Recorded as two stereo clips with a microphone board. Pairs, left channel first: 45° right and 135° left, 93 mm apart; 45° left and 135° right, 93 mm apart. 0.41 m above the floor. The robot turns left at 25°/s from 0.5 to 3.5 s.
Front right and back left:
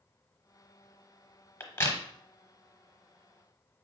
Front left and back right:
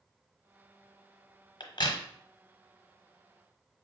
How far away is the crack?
About 0.9 m.